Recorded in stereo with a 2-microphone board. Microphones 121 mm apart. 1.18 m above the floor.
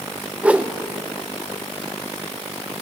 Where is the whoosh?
10° right (ahead or behind), 0.5 m.